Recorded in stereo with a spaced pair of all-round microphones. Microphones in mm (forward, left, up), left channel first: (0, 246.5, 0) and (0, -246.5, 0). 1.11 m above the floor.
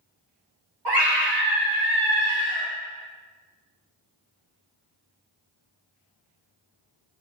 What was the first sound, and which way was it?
A scream, 55° right (ahead or behind).